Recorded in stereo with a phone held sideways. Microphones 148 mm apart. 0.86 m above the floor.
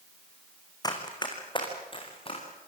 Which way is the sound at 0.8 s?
25° left (ahead or behind).